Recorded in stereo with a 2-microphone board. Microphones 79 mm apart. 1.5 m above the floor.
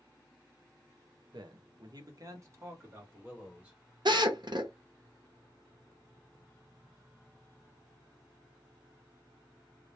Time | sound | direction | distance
1.3 | a man speaking | 65° right (ahead or behind) | 0.7 m
4.0 | a drill | 65° right (ahead or behind) | 0.7 m